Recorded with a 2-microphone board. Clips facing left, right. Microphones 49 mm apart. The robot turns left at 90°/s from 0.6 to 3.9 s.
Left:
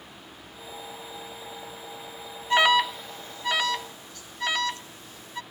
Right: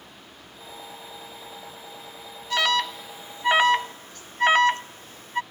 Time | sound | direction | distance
2.5 | an alarm | 25° left (ahead or behind) | ?